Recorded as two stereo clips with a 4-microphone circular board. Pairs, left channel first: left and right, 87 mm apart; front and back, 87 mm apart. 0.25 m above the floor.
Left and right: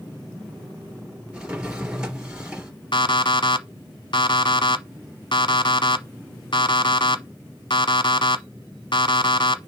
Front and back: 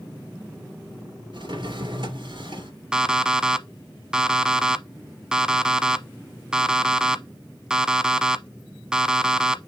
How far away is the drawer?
About 3 m.